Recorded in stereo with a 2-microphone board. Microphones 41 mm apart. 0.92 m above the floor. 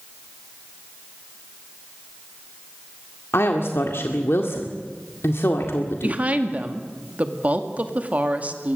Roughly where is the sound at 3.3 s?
Left.